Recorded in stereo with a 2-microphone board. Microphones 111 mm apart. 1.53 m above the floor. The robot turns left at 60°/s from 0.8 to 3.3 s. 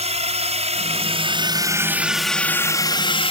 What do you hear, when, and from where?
0.0 s a drone: 75° right (ahead or behind); by 3.3 s 60° left (ahead or behind)